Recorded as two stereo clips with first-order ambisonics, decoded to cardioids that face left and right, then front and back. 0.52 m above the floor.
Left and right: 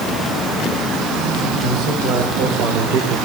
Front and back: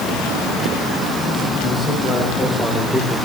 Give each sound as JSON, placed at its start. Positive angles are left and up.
{"t": 1.6, "sound": "a man speaking", "azimuth_deg": -65, "distance_m": 3.5}